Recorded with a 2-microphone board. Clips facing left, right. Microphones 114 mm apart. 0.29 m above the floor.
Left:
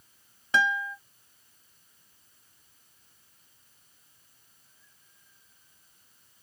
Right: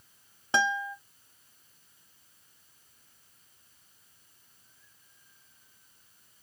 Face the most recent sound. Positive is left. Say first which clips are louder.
# left 1 dB
turn(degrees=-30)  # may be behind; listen again after turning